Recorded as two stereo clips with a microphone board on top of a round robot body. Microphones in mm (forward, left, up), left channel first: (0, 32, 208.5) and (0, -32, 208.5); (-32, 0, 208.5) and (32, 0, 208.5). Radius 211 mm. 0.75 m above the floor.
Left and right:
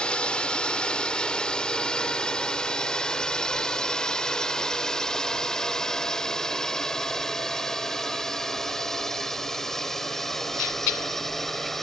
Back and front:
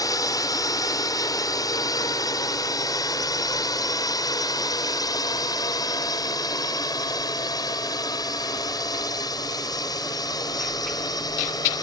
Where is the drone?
165° left; by 11.8 s 175° left.